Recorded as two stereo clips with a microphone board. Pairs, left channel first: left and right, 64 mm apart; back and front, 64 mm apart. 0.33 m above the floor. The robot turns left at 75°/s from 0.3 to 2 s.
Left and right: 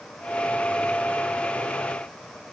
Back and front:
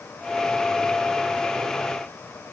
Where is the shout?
No shout in this recording.